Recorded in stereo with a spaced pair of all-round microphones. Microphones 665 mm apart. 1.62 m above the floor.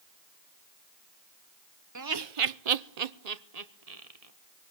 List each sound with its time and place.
1.9 s laughter: 25° right (ahead or behind), 0.7 m; by 4.3 s 60° right (ahead or behind), 1.6 m